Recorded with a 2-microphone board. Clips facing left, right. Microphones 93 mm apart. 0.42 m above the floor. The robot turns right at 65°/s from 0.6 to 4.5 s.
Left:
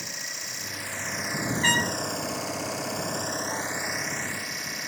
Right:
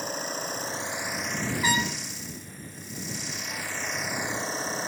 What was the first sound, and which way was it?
An engine running, 40° right.